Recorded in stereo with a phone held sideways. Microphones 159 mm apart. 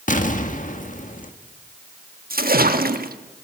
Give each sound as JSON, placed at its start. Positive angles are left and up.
{"t": 0.1, "sound": "an explosion", "side_deg": 55, "distance_m": 1.6}
{"t": 2.3, "sound": "a splash", "side_deg": -70, "distance_m": 1.3}